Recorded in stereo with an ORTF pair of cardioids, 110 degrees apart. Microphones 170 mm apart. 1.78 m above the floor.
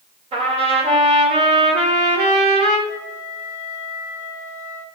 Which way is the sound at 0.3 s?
40° right.